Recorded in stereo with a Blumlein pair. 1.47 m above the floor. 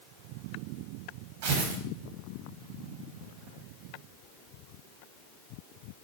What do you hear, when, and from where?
1.4 s tearing paper: 60° right, 2.5 m